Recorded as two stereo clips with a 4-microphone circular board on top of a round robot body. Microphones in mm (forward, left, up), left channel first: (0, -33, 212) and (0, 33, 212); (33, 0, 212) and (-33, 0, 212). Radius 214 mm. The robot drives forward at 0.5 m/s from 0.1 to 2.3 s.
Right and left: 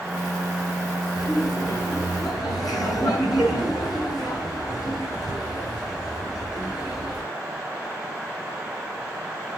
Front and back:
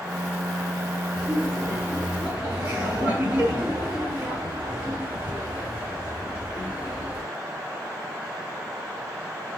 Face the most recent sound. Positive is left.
turn(degrees=-115)